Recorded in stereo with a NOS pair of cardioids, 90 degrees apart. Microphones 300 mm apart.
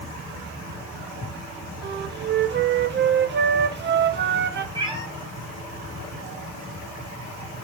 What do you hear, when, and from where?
1.8 s a flute: 35° right, 0.8 m
4.8 s a cat meowing: 15° right, 2.5 m